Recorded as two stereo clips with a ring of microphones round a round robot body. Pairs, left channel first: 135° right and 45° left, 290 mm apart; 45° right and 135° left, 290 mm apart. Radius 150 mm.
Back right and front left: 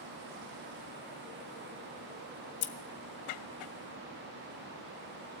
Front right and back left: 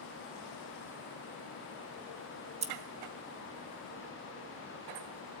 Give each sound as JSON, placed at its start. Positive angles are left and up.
{"t": 2.6, "sound": "scissors", "azimuth_deg": -155, "distance_m": 1.7}